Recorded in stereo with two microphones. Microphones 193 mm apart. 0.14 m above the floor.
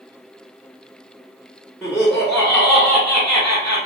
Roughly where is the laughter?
Centre.